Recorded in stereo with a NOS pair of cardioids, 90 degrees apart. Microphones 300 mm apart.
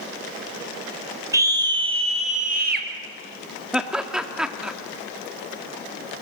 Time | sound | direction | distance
1.3 | a scream | 10° right | 5 m
3.7 | laughter | 5° right | 2.5 m